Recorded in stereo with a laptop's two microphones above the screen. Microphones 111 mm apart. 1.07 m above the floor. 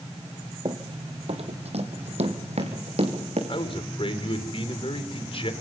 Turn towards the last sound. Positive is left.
turn(degrees=55)  # may be behind; listen again after turning